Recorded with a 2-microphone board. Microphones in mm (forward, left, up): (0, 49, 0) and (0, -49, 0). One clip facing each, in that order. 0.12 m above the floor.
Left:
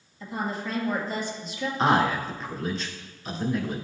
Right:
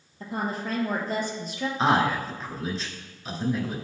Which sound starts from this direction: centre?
A man speaking, at 1.8 s.